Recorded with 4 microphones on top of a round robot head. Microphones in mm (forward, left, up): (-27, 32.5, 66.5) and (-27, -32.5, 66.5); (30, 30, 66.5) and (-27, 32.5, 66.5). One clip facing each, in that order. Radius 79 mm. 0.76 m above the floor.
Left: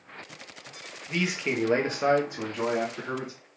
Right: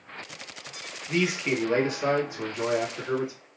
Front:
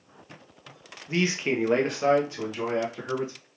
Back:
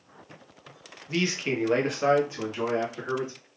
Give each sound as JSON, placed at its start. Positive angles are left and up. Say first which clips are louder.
{"t": 1.1, "sound": "a man speaking", "louder": "right 3 dB, front 2 dB", "azimuth_deg": -25, "distance_m": 0.9}